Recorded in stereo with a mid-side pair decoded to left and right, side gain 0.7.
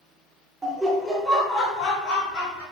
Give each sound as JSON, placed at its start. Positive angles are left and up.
{"t": 0.6, "sound": "laughter", "azimuth_deg": -15, "distance_m": 0.8}